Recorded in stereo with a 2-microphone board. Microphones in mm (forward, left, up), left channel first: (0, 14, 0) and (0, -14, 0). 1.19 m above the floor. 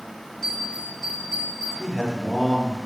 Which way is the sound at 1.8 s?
5° left (ahead or behind).